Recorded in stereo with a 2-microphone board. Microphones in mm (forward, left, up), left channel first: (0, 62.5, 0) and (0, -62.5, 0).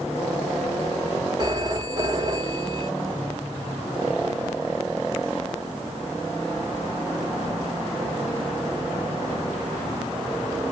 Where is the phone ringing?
30° right (ahead or behind), 1.1 m.